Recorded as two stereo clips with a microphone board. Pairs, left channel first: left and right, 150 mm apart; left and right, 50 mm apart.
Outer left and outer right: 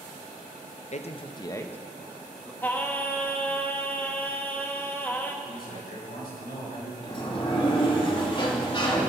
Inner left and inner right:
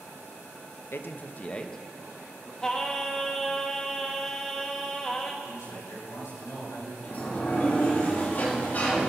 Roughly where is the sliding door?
Left.